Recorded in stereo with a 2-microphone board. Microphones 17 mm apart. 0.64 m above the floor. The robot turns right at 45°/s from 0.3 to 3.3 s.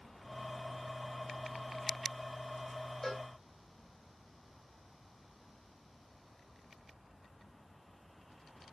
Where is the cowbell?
15° left (ahead or behind), 3 m; by 3.3 s 5° left (ahead or behind), 3 m.